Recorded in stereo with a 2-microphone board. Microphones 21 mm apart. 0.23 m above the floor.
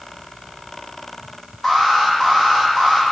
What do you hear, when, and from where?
1.6 s an alarm: 15° left (ahead or behind), 8 m